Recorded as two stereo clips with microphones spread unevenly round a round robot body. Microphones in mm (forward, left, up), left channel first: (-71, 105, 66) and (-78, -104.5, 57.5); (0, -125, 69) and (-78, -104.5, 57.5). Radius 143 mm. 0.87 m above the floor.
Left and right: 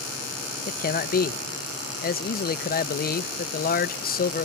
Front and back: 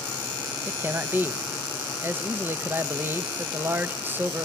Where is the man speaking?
120° left, 0.9 m.